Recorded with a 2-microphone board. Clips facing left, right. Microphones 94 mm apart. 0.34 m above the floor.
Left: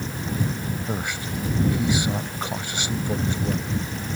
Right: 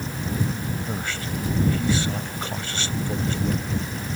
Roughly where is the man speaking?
Centre.